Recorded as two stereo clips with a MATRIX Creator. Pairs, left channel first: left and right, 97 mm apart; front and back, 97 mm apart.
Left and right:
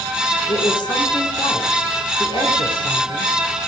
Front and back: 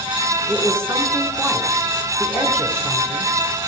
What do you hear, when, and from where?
0.5 s a woman speaking: 115° left, 2.5 m